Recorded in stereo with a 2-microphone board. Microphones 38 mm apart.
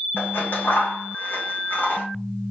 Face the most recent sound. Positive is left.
turn(degrees=70)  # may be behind; listen again after turning